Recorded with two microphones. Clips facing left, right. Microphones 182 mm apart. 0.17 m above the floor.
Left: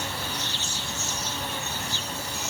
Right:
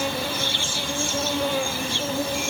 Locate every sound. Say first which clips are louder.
0.0 s an insect: right 8 dB; 70° right (ahead or behind)